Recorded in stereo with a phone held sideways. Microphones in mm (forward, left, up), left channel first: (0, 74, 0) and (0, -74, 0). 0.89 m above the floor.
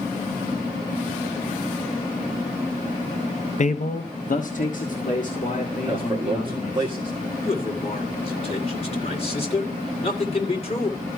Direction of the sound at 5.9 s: 20° right (ahead or behind).